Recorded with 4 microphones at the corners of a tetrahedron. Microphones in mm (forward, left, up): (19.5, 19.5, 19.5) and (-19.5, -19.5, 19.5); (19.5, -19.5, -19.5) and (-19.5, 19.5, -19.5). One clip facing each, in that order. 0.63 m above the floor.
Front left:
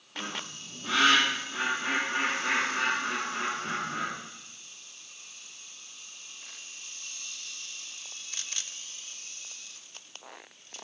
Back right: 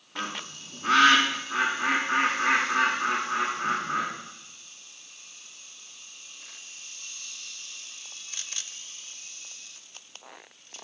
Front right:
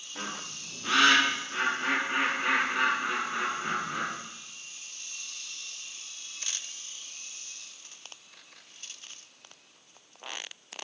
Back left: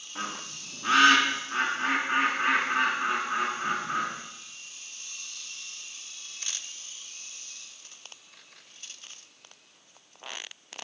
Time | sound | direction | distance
0.1 | a bird | 165° right | 5.5 m